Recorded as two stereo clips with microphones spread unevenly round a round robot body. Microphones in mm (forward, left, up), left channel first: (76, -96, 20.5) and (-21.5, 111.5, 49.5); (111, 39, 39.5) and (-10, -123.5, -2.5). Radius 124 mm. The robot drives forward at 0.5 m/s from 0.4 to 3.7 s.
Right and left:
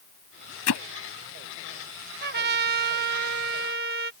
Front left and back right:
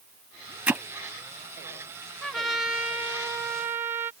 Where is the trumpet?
150° left; by 4.1 s 165° left.